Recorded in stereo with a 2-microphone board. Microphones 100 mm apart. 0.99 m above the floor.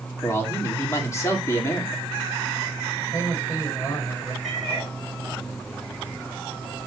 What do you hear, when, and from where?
0.2 s a man speaking: 25° left (ahead or behind), 2.5 m
3.0 s a man speaking: 25° left (ahead or behind), 6 m
4.4 s a cat meowing: centre (ahead or behind), 4 m